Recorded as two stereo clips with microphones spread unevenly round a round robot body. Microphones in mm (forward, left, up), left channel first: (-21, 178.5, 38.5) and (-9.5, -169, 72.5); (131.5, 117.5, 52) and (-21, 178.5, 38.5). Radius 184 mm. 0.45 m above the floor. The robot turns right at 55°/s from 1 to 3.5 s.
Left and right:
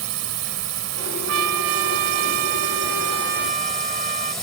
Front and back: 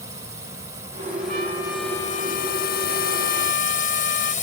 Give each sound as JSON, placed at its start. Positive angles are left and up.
{"t": 0.0, "sound": "a drone", "azimuth_deg": -130}
{"t": 1.3, "sound": "a trumpet", "azimuth_deg": -140}